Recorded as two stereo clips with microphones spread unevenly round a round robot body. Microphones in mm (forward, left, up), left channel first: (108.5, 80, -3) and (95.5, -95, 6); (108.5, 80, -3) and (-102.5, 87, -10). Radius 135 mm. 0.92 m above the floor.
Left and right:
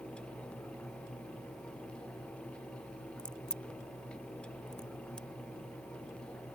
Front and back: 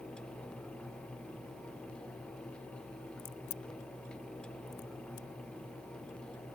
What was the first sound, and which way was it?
A crack, straight ahead.